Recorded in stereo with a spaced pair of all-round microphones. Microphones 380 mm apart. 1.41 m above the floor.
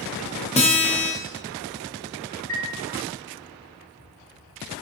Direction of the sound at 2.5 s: 25° right (ahead or behind).